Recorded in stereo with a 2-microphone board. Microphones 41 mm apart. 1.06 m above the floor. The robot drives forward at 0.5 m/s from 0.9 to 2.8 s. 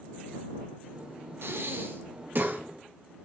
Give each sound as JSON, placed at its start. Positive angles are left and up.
{"t": 1.4, "sound": "breathing", "side_deg": -65, "distance_m": 1.2}